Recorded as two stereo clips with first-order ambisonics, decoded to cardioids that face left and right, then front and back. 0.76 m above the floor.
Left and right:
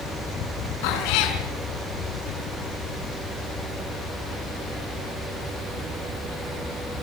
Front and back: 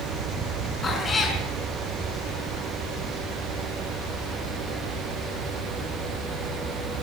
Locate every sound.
0.8 s a cat meowing: 70° left, 5 m